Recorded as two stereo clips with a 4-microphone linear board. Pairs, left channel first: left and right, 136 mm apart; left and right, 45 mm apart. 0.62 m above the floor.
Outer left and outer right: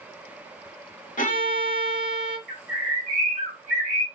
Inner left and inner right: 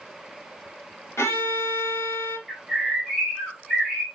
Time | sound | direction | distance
1.2 | a violin | 80° left | 1.0 m
2.5 | a bird | 5° left (ahead or behind) | 3 m